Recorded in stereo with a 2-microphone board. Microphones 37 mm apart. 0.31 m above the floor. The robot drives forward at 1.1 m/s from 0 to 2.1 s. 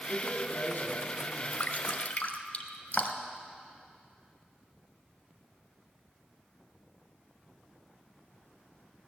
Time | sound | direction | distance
0.1 | a man speaking | 55° left (ahead or behind) | 2.5 m
1.6 | dripping | 45° left (ahead or behind) | 1.0 m